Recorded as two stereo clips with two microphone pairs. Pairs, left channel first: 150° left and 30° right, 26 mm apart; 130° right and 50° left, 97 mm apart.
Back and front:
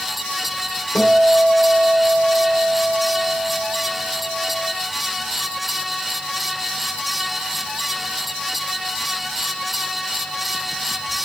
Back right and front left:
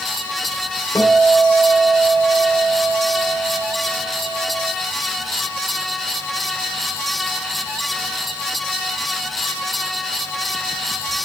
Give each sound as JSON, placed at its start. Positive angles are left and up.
{"t": 0.9, "sound": "a guitar", "azimuth_deg": 170, "distance_m": 1.8}